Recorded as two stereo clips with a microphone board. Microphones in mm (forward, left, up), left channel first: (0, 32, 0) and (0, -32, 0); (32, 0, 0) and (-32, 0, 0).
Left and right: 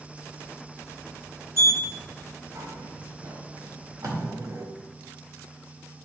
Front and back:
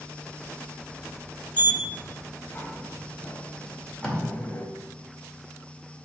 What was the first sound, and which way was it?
A sliding door, 60° right.